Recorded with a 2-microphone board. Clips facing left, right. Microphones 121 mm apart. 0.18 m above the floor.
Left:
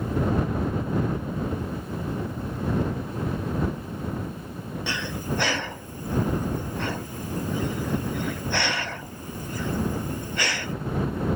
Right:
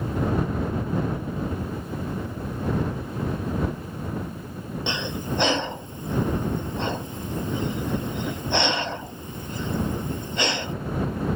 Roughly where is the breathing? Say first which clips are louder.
Right 1 dB; right.